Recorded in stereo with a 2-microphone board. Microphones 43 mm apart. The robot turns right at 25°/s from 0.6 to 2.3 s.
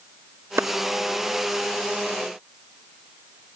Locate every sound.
0.6 s a clap: 75° right (ahead or behind), 0.9 m